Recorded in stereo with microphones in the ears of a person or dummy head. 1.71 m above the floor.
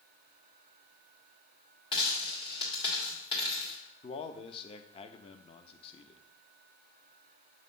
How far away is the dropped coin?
About 1.7 m.